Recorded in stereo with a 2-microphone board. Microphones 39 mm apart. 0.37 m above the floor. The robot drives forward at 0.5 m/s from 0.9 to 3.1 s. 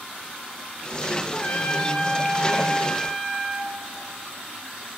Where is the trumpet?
30° left (ahead or behind), 0.6 m; by 3.7 s 15° left (ahead or behind), 1.3 m.